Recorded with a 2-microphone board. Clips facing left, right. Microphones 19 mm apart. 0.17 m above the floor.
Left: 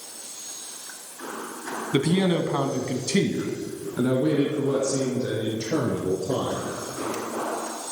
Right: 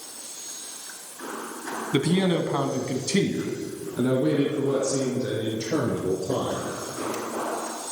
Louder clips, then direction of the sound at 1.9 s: Left 1 dB; centre (ahead or behind).